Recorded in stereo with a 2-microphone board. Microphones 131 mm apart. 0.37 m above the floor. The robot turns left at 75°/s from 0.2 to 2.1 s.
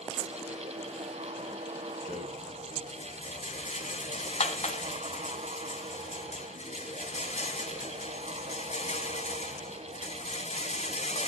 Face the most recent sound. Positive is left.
turn(degrees=55)  # may be behind; listen again after turning